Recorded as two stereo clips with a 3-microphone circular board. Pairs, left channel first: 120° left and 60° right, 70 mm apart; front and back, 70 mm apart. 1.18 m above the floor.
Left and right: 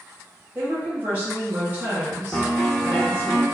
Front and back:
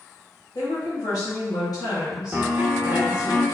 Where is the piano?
170° left, 0.8 m.